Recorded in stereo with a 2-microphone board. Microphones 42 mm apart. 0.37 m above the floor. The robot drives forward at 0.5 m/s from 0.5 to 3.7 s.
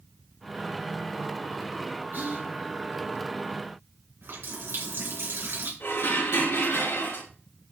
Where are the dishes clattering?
80° left, 4.5 m.